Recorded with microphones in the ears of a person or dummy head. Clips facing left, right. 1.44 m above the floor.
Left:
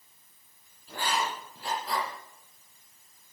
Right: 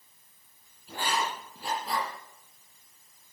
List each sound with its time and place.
0.9 s writing: 15° right (ahead or behind), 7 m